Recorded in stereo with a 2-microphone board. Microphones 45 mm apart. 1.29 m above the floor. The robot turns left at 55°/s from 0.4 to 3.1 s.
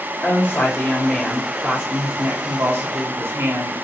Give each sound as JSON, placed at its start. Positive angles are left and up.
{"t": 0.2, "sound": "a woman speaking", "azimuth_deg": 45, "distance_m": 4.0}